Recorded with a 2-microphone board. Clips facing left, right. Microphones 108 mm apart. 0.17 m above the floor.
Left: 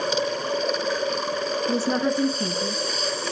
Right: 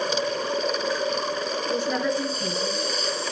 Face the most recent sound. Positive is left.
turn(degrees=30)  # may be behind; listen again after turning